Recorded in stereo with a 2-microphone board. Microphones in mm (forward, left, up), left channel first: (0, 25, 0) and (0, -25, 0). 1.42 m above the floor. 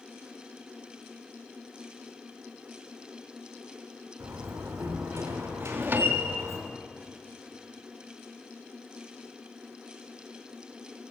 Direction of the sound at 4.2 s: 65° right (ahead or behind).